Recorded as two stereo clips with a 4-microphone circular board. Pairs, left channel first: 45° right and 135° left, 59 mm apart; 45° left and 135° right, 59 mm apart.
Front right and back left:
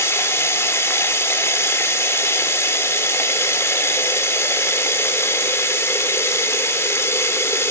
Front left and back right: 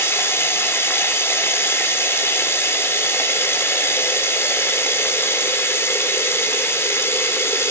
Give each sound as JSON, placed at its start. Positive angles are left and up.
{"t": 0.0, "sound": "running water", "azimuth_deg": 0, "distance_m": 3.5}